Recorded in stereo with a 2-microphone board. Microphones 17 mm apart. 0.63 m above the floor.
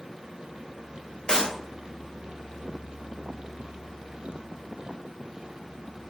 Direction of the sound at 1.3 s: 40° left (ahead or behind).